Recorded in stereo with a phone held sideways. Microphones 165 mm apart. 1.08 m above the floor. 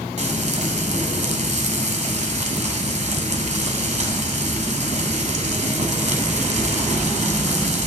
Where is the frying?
45° right (ahead or behind), 1.3 m.